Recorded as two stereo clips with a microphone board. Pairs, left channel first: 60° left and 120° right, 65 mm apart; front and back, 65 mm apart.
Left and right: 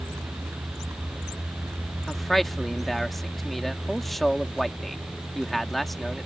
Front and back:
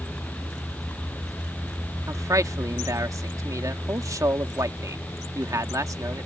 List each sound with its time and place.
0.0 s a vehicle: 70° right; by 6.3 s 60° right
2.1 s a man speaking: 150° left